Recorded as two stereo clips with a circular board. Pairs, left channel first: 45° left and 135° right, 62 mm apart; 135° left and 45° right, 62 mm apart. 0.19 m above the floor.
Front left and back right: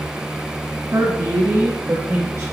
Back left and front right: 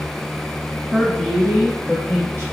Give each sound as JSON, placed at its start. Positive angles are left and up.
{"t": 0.9, "sound": "a woman speaking", "azimuth_deg": -140, "distance_m": 1.7}